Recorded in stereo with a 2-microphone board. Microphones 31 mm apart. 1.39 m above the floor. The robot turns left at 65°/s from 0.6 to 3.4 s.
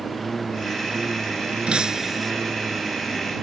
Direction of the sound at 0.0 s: 5° left.